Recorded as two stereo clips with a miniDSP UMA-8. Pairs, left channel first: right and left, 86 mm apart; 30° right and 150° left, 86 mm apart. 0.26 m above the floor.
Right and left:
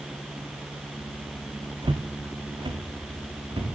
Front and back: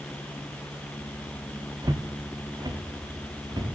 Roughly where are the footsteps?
Left.